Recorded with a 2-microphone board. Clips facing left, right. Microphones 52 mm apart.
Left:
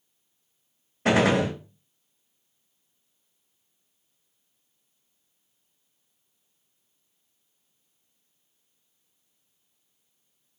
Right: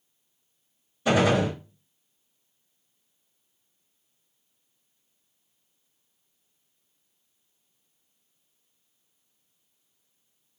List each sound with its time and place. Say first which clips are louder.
1.1 s a gunshot: left 1 dB; 70° left (ahead or behind), 1.1 m